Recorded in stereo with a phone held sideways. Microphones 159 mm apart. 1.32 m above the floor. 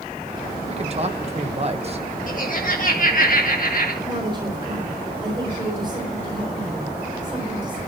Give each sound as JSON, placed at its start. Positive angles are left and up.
{"t": 0.7, "sound": "a man speaking", "side_deg": -40, "distance_m": 1.4}
{"t": 2.3, "sound": "laughter", "side_deg": 55, "distance_m": 1.7}
{"t": 4.0, "sound": "a woman speaking", "side_deg": -30, "distance_m": 4.0}